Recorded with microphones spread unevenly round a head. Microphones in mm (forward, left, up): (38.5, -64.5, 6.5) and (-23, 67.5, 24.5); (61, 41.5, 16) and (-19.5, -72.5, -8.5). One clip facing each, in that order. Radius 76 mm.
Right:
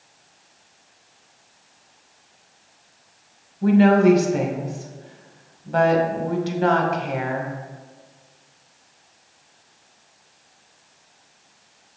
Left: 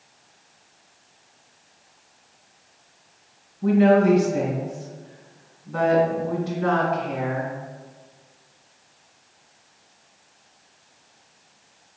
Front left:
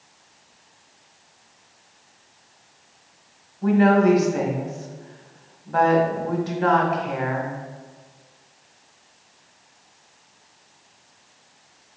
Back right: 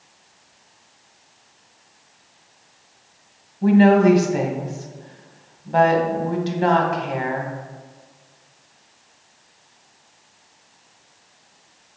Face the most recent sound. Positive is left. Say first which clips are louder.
# right 2 dB, back right 3 dB
turn(degrees=-70)